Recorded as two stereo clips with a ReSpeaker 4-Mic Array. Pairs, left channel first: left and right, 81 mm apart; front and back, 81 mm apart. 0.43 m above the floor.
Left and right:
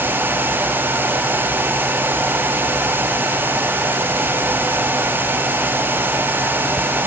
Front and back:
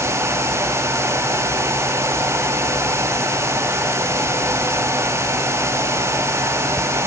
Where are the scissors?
No scissors in this recording.